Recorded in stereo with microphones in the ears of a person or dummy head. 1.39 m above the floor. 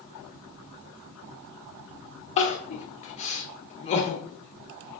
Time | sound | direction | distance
2.4 | crying | 35° left (ahead or behind) | 0.5 m